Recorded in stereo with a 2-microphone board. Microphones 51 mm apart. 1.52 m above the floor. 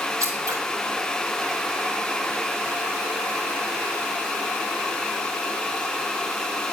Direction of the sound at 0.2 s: 75° right (ahead or behind).